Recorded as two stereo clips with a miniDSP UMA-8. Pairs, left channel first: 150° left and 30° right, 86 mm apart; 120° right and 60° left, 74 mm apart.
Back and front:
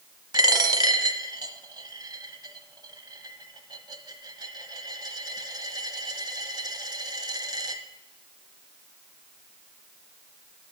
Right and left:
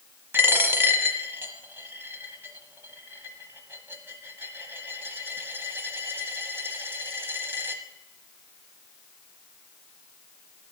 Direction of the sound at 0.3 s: Straight ahead.